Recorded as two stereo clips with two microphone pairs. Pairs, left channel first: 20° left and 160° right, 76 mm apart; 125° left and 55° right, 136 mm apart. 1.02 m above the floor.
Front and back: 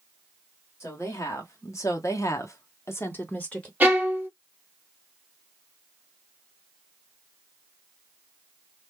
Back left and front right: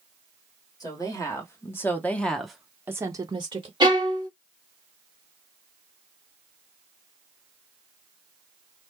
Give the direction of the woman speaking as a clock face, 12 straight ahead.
10 o'clock.